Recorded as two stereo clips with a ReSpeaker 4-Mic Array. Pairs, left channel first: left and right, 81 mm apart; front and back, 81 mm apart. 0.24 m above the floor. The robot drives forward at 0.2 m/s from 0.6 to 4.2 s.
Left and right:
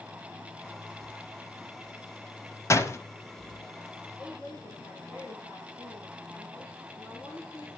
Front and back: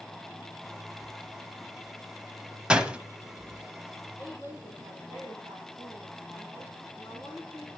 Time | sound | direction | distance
2.7 | a door slam | 110° left | 1.0 m
4.2 | a woman speaking | 120° left | 9 m